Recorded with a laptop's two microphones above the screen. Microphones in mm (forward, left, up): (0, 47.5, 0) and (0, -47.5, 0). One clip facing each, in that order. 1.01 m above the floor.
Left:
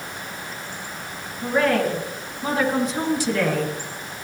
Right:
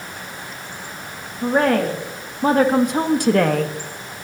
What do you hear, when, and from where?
1.4 s a woman speaking: 45° right (ahead or behind), 1.8 m; by 3.7 s 55° right (ahead or behind), 1.2 m